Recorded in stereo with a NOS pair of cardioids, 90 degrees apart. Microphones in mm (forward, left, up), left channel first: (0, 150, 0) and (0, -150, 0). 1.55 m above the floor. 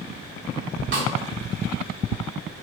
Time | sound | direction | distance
0.9 | a snare drum | 45° right | 0.7 m